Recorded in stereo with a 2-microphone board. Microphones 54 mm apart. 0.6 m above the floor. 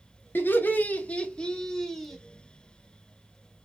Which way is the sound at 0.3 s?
40° left (ahead or behind).